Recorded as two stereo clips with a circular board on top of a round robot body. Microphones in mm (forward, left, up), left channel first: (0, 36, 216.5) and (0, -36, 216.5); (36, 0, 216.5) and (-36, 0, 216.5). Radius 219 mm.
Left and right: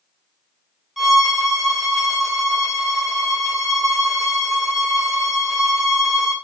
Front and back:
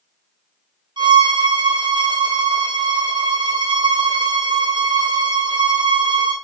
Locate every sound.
1.0 s a violin: 175° right, 2.5 m